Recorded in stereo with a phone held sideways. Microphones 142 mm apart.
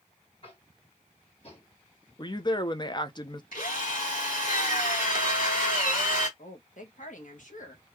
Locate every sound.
0.4 s tapping: 45° left (ahead or behind), 1.8 m
2.2 s a woman speaking: 30° left (ahead or behind), 0.7 m
3.5 s a drill: 75° left (ahead or behind), 1.8 m
6.4 s a woman speaking: 65° left (ahead or behind), 1.5 m